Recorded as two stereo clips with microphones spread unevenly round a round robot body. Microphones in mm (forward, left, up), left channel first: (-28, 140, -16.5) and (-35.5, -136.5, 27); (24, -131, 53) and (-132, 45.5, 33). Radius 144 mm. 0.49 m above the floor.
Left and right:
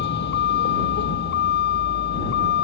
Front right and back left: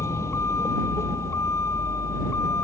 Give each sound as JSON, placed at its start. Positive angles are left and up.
{"t": 0.0, "sound": "a vehicle", "azimuth_deg": 30}